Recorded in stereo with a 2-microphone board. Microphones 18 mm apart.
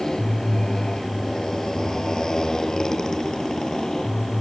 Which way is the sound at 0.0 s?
30° left (ahead or behind).